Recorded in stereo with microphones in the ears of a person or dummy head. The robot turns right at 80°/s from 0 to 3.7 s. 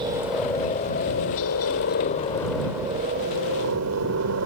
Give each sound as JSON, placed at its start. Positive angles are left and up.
{"t": 0.0, "sound": "a helicopter", "side_deg": -25}